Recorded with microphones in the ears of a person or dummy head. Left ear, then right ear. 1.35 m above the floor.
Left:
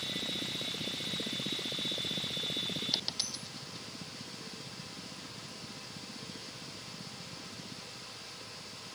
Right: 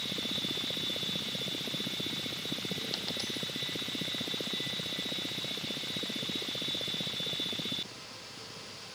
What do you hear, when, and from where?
2.9 s a dropped coin: 20° left (ahead or behind)